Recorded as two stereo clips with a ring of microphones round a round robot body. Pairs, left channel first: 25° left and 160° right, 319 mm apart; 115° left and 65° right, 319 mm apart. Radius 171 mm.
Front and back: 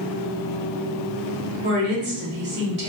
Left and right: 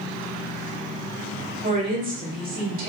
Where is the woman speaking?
120° right, 1.8 m.